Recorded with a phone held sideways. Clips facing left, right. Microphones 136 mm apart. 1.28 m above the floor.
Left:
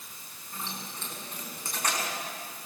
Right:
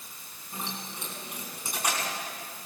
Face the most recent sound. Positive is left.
turn(degrees=-10)  # may be behind; listen again after turning